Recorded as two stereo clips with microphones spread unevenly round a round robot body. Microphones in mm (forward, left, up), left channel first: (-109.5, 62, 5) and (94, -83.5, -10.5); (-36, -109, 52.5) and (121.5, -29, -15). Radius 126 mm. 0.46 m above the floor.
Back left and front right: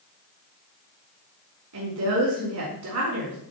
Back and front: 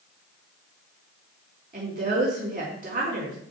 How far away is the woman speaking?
About 4.5 m.